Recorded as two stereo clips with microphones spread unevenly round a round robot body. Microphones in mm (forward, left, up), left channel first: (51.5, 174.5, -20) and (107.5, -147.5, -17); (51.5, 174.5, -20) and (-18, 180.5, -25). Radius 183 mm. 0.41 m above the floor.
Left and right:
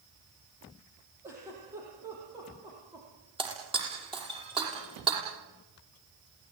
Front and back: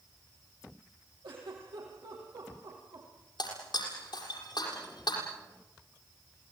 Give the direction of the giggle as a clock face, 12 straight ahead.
5 o'clock.